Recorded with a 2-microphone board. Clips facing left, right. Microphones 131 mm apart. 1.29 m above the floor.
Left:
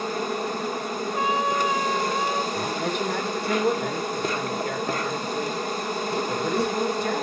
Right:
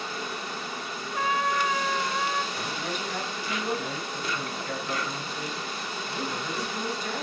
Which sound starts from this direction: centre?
A trumpet, at 1.1 s.